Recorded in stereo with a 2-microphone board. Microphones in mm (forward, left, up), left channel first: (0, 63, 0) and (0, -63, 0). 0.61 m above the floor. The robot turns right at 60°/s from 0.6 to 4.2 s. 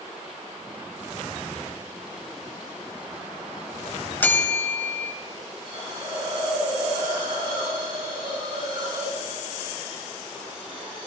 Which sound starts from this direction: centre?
A bell, at 4.2 s.